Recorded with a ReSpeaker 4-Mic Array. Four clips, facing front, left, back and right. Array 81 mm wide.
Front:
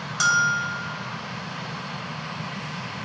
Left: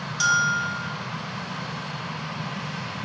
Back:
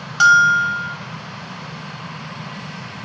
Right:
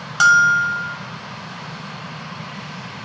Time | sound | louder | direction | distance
0.2 | a bell | right 9 dB, back 9 dB | 120° right | 1.3 m